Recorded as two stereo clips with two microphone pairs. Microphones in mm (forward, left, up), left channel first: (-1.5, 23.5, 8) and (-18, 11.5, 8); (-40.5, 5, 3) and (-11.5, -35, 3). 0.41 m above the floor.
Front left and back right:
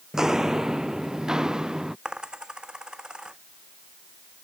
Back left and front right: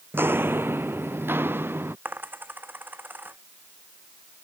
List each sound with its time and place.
0.1 s footsteps: 85° right; by 1.9 s 90° right
2.0 s a dropped coin: 100° right